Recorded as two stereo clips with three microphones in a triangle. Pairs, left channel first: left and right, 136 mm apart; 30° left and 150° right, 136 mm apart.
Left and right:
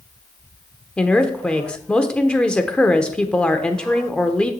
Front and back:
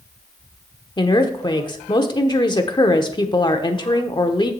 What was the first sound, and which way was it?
A woman speaking, 15° left.